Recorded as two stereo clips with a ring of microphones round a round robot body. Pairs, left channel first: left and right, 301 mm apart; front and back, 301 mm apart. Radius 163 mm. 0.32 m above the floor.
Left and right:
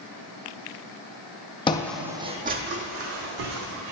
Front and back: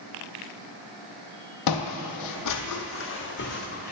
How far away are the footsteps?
About 0.6 m.